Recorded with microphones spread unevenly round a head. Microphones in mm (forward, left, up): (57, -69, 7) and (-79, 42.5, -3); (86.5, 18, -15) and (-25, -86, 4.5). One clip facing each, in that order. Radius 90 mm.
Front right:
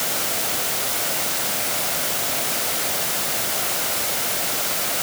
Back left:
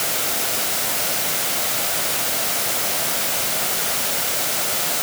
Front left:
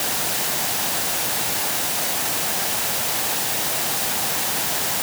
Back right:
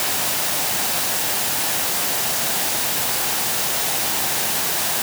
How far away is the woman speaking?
I don't hear a woman speaking.